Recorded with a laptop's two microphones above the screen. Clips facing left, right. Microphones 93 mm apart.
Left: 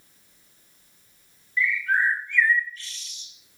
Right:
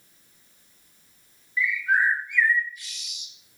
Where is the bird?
15° right (ahead or behind), 3 m.